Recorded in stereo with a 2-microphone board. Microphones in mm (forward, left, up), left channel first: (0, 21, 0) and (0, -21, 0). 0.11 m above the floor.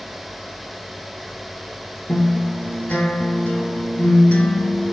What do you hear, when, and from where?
2.1 s a guitar: 35° left (ahead or behind), 1.0 m